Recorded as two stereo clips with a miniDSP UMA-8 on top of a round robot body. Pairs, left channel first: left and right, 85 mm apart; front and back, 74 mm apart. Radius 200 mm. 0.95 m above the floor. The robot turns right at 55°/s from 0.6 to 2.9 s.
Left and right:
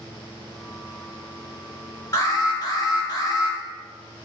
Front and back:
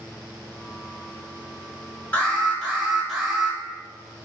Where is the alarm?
45° left, 1.3 m; by 3.6 s 90° left, 1.3 m.